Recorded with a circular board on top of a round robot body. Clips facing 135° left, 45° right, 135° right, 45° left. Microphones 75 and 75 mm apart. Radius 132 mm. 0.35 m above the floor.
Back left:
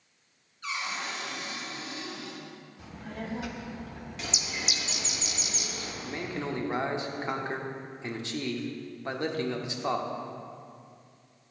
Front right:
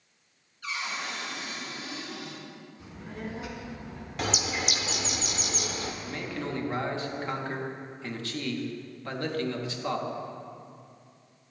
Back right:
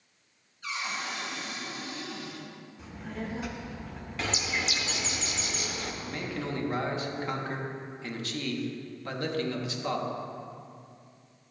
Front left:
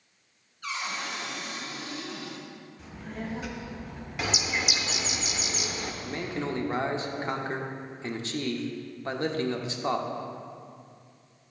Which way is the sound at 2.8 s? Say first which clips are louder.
Even, even; 135° left.